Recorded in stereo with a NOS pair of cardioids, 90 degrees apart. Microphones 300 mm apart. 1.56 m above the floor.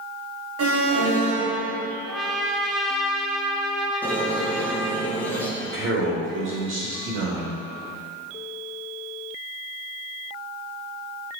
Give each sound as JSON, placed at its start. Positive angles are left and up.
{"t": 0.6, "sound": "an alarm", "azimuth_deg": -50, "distance_m": 1.9}
{"t": 2.1, "sound": "a trumpet", "azimuth_deg": 0, "distance_m": 0.9}
{"t": 4.0, "sound": "a squeak", "azimuth_deg": 5, "distance_m": 1.5}
{"t": 5.6, "sound": "a man speaking", "azimuth_deg": -45, "distance_m": 2.5}